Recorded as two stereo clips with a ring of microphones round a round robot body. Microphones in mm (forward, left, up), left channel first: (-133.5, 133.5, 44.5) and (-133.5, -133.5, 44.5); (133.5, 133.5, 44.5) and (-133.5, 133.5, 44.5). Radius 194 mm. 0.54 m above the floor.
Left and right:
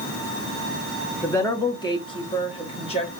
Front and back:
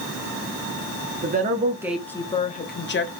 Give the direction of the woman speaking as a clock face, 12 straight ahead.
6 o'clock.